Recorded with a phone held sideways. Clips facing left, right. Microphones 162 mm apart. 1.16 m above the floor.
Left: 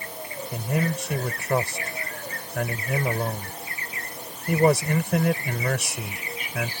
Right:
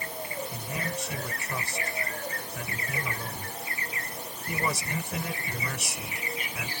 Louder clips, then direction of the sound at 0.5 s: Left 8 dB; 65° left (ahead or behind).